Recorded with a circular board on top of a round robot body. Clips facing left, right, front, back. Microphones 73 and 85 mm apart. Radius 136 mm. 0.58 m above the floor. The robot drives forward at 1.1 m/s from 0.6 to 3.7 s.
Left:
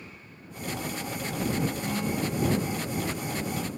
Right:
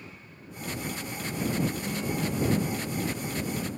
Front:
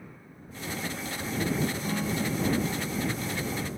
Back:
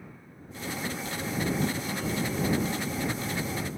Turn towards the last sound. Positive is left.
turn(degrees=75)